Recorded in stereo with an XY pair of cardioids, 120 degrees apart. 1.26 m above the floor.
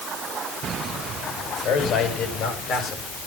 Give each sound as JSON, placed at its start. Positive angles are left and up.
{"t": 1.6, "sound": "a man speaking", "azimuth_deg": 65, "distance_m": 7.0}